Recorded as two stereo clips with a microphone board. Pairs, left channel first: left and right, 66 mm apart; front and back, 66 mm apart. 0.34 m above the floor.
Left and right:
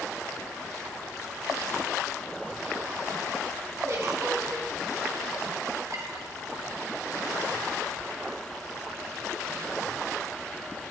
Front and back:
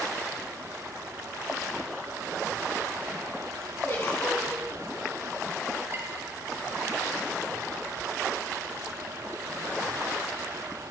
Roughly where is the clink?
Behind right.